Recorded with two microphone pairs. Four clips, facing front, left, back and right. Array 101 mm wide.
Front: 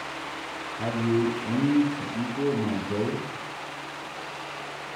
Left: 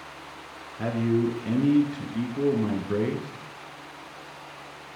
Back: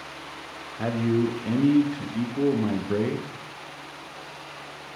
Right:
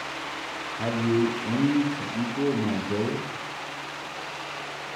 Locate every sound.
0.8 s a man speaking: straight behind, 1.1 m